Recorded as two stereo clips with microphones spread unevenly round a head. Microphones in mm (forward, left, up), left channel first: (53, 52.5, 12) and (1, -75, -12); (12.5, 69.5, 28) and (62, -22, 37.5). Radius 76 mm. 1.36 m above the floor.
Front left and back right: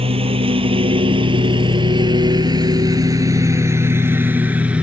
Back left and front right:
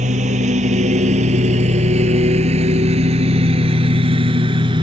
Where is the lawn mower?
60° right; by 4.8 s 25° right.